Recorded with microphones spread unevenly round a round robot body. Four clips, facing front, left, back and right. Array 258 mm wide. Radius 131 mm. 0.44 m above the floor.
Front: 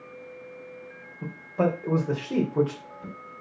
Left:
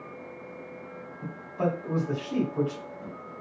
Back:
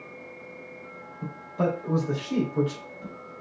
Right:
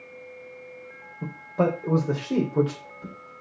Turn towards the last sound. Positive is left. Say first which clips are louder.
# right 5 dB, front 2 dB
turn(degrees=-65)